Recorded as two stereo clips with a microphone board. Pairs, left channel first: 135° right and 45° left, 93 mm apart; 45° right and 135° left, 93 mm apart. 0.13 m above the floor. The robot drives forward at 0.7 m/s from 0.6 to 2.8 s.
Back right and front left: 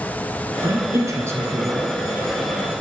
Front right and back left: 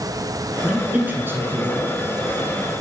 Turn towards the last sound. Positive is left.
turn(degrees=135)